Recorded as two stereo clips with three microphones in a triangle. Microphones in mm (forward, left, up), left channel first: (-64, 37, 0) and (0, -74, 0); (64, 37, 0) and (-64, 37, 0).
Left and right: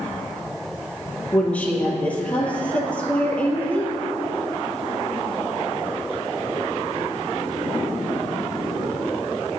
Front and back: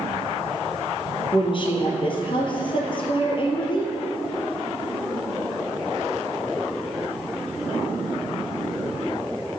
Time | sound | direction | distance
1.3 | a woman speaking | 40° left | 2 m